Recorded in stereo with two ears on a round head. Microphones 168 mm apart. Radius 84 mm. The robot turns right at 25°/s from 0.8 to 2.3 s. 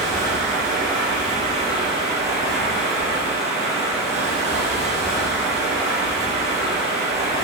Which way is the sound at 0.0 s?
50° right.